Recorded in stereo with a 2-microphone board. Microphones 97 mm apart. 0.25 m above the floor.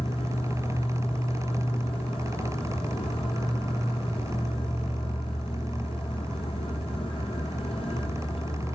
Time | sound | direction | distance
0.0 | an insect | 80° left | 1.3 m